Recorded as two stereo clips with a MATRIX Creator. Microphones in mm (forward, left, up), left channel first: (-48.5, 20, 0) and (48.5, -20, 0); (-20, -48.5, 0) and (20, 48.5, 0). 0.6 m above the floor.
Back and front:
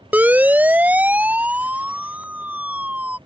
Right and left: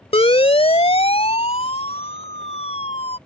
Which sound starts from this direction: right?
A siren, at 0.1 s.